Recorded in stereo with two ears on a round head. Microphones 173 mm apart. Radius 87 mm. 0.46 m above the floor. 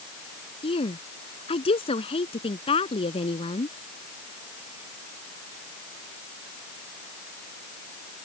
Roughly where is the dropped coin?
No dropped coin in this recording.